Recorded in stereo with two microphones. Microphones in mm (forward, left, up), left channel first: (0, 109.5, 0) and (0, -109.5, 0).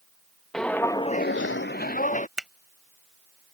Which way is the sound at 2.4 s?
5° right (ahead or behind).